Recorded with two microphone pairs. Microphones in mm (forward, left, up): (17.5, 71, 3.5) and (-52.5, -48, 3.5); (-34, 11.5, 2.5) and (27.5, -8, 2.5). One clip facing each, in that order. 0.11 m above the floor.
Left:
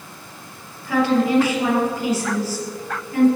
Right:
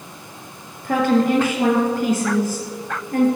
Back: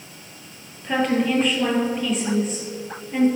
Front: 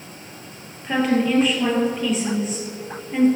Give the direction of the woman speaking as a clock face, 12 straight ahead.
4 o'clock.